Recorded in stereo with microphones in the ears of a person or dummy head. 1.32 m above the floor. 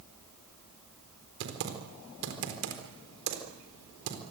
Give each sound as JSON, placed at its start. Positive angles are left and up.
{"t": 1.4, "sound": "typing on a keyboard", "side_deg": -70, "distance_m": 4.0}